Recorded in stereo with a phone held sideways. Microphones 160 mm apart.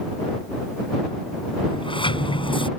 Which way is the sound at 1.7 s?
30° left (ahead or behind).